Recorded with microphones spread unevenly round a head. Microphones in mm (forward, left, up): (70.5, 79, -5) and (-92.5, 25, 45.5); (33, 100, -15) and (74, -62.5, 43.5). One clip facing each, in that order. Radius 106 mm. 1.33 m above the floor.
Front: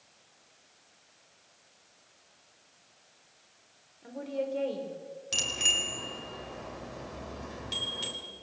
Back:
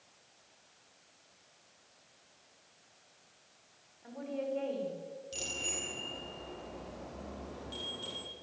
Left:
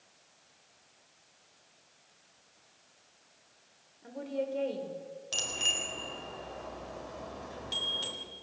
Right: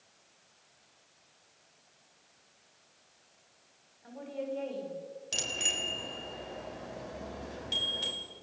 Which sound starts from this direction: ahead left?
A woman speaking, at 4.0 s.